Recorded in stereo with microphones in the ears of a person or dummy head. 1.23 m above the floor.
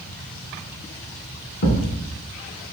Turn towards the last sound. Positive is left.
turn(degrees=50)  # may be behind; listen again after turning